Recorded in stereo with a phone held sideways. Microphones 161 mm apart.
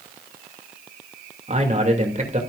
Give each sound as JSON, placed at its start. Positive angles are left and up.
{"t": 1.5, "sound": "a man speaking", "side_deg": -45, "distance_m": 3.0}